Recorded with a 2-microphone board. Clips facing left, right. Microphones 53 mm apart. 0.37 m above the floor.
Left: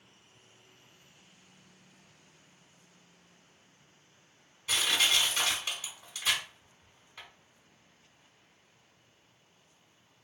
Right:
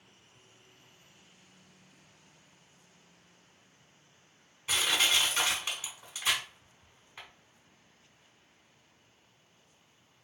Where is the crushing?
20° right (ahead or behind), 1.1 m.